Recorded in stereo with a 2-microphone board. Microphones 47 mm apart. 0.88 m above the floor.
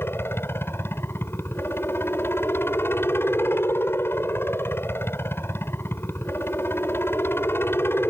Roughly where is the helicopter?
Left.